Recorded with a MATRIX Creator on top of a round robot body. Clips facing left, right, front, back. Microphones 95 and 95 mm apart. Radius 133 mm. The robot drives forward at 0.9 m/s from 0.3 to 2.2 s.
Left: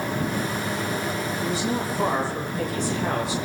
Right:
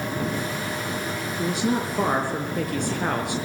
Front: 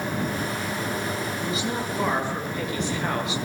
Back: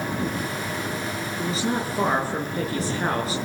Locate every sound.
1.4 s a woman speaking: 120° right, 7 m; by 3.4 s 125° right, 7.5 m